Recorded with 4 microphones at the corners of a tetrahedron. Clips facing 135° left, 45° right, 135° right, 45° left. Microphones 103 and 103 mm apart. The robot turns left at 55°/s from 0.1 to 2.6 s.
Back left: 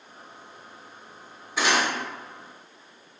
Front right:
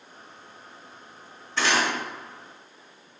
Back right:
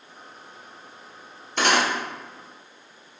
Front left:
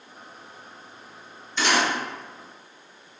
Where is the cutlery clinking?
150° right, 0.5 m; by 1.9 s 170° right, 0.5 m.